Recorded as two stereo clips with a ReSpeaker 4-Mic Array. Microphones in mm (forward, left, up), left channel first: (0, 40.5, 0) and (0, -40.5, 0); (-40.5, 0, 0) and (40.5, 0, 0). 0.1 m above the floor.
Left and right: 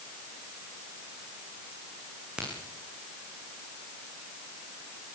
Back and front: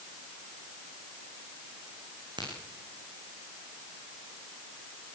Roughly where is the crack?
Ahead.